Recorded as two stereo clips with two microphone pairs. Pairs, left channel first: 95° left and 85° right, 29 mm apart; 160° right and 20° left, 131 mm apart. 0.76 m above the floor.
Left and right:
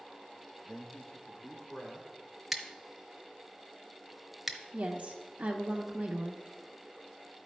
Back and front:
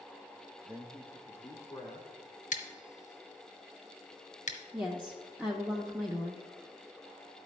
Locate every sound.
0.7 s a man speaking: 70° left, 0.6 m; by 2.1 s 145° left, 2 m
2.5 s scissors: 170° right, 0.9 m
4.7 s a woman speaking: 55° right, 0.7 m